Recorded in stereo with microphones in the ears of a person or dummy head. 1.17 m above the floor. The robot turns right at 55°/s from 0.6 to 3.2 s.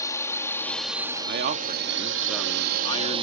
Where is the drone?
15° left (ahead or behind); by 3.2 s 25° right (ahead or behind).